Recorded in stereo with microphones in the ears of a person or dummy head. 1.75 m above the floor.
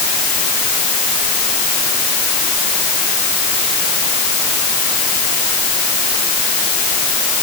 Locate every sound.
Only background noise.